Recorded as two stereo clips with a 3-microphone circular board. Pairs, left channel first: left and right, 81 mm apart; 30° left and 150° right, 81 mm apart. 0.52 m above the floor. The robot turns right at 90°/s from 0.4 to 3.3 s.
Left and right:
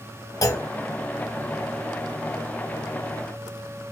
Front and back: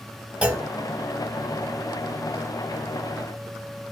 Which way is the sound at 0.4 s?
135° left.